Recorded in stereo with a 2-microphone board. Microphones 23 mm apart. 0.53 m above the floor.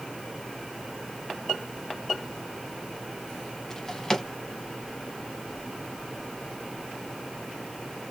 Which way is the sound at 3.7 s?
25° left (ahead or behind).